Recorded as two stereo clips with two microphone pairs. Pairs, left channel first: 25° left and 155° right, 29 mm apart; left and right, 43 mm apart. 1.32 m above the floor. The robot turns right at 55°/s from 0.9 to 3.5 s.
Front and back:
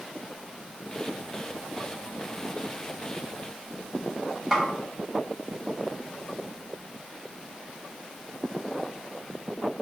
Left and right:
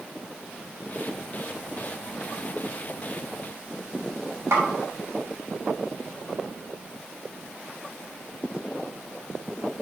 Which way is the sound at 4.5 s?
85° right.